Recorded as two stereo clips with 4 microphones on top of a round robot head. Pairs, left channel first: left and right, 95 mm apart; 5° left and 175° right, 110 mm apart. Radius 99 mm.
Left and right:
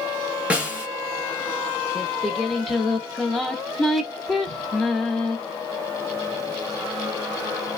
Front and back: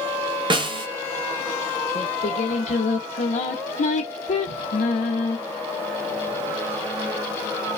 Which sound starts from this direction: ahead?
Singing, at 1.9 s.